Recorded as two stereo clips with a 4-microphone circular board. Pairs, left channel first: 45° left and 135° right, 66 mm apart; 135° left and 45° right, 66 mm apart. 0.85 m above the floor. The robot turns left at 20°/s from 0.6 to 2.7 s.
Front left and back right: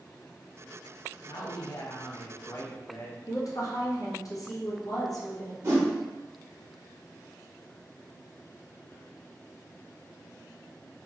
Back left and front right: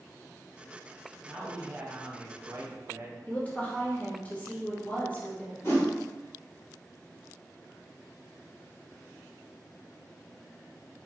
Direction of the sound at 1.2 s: 35° left.